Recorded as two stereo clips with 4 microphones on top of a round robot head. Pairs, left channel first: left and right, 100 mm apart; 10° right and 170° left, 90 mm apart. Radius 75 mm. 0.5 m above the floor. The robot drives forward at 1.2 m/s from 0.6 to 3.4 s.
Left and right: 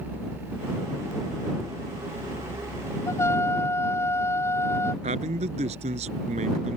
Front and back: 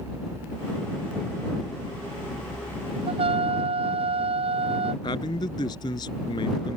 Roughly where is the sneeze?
No sneeze in this recording.